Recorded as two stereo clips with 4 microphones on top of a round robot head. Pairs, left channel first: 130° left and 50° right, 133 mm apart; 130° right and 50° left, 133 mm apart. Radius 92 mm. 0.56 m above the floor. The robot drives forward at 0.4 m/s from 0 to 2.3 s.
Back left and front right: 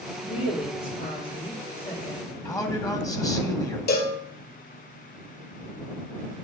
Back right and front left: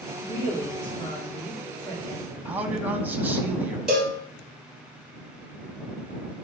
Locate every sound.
0.2 s a woman speaking: 160° left, 1.4 m; by 2.4 s 165° left, 2 m
2.5 s a man speaking: 110° left, 1.1 m
3.9 s a cowbell: 135° left, 1.9 m